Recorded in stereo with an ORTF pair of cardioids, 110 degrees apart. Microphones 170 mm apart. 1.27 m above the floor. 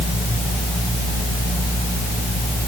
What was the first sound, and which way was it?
Only background noise.